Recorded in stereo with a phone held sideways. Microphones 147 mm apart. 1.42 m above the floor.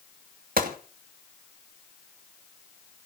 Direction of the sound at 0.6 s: 80° right.